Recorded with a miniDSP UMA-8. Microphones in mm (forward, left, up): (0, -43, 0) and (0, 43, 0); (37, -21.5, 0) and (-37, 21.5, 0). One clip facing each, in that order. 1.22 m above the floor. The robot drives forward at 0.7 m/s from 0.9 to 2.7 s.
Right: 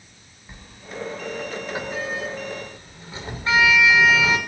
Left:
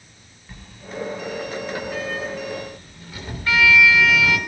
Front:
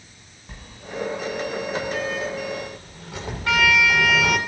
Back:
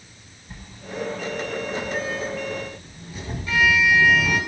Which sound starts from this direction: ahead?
A sliding door, at 0.5 s.